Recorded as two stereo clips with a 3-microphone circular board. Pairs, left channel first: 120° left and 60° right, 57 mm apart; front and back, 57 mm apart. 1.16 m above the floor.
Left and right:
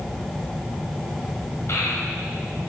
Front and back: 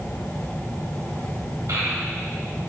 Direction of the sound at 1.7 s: 165° left.